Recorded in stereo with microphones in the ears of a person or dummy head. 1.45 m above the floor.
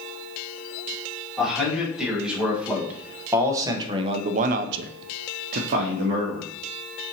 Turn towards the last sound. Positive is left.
turn(degrees=-35)  # may be behind; listen again after turning